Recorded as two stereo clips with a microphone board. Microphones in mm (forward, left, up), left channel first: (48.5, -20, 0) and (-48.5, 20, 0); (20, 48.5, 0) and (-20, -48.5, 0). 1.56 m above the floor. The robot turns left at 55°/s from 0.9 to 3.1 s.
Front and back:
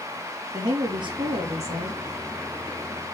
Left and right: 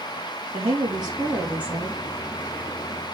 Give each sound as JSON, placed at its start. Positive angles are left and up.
{"t": 0.5, "sound": "a woman speaking", "azimuth_deg": -155, "distance_m": 3.0}